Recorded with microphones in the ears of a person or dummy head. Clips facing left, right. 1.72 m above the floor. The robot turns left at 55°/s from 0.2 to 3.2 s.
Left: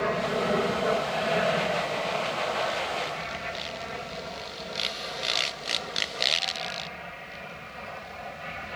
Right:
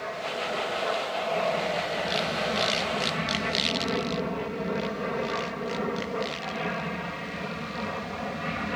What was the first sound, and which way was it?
An aircraft, 65° left (ahead or behind).